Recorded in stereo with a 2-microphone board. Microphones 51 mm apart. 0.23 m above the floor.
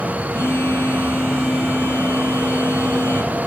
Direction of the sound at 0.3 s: 45° left (ahead or behind).